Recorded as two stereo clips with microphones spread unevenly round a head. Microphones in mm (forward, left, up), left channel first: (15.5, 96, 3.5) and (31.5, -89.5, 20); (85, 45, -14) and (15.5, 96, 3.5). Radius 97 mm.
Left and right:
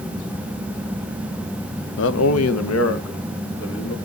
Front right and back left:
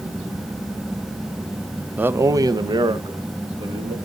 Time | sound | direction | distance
2.0 | a man speaking | 75° left | 0.5 m